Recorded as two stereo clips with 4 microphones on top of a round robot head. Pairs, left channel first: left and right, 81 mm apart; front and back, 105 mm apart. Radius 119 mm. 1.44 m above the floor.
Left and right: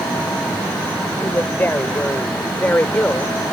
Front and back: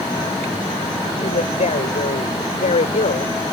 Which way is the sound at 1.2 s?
25° left.